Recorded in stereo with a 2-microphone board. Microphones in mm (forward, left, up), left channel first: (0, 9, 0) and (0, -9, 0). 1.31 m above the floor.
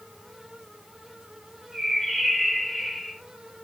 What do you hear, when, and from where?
1.7 s a bird: 10° left (ahead or behind), 8.5 m